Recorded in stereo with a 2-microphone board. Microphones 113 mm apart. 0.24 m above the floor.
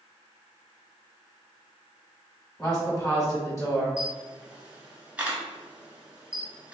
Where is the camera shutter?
10° right (ahead or behind), 0.6 m.